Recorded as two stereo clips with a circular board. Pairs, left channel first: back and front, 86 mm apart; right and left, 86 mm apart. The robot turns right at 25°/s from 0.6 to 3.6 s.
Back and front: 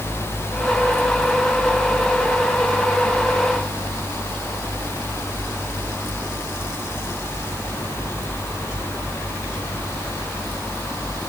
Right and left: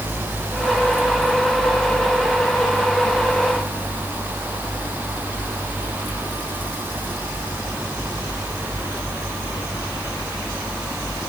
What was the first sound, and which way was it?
Only background noise.